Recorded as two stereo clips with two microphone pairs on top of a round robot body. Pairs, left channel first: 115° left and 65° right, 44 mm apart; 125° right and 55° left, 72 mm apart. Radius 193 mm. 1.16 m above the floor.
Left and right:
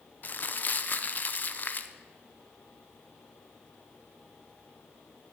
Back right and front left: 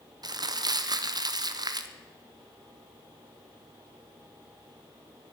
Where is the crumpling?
70° left, 1.0 m.